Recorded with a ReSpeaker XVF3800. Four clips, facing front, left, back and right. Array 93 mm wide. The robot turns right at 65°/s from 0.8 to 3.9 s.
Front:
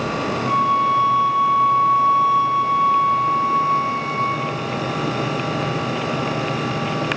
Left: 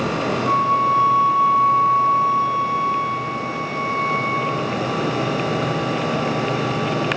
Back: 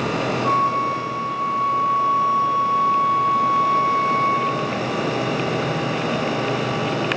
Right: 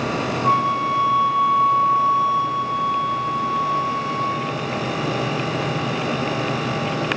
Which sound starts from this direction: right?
A flute, at 0.4 s.